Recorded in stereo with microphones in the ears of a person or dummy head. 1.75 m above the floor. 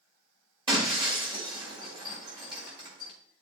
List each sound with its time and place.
0.7 s breaking glass: 30° right (ahead or behind), 2 m